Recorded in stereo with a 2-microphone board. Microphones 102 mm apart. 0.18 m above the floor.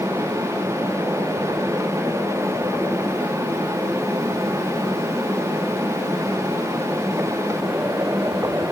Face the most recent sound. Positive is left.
No sound to turn to.